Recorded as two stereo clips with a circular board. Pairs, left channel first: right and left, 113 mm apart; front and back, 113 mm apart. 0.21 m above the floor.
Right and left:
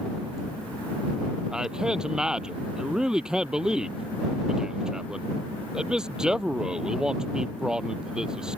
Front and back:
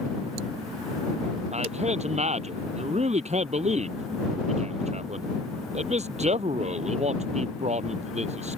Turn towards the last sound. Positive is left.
turn(degrees=175)